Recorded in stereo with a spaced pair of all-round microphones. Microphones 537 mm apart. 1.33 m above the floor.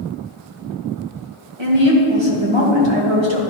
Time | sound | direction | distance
1.6 | a woman speaking | 55° right (ahead or behind) | 1.3 m